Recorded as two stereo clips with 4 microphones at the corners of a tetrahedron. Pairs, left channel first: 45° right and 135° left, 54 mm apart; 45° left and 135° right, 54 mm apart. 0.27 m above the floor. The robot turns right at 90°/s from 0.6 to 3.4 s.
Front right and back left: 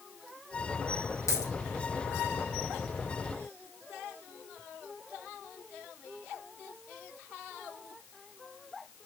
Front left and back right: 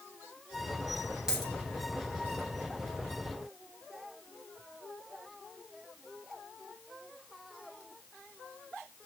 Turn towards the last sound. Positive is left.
turn(degrees=135)